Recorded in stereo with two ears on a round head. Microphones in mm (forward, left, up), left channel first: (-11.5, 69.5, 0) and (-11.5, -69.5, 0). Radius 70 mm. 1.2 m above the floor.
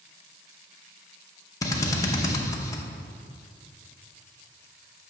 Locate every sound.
1.6 s a drill: 20° left (ahead or behind), 0.7 m